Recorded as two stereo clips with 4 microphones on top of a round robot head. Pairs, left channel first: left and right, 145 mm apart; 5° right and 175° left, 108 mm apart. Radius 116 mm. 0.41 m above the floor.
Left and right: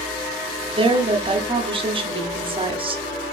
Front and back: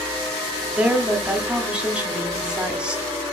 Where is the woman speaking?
110° right, 1.1 m.